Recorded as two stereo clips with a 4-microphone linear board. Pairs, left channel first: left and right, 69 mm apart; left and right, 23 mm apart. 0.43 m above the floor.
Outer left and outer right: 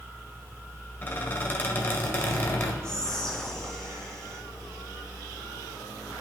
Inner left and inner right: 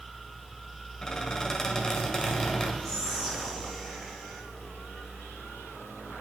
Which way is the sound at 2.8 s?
10° left (ahead or behind).